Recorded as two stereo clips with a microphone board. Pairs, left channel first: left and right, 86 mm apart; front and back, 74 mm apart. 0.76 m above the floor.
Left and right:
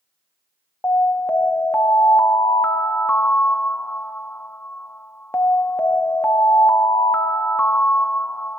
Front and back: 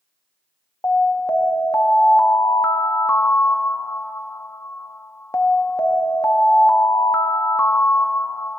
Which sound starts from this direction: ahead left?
An alarm, at 0.8 s.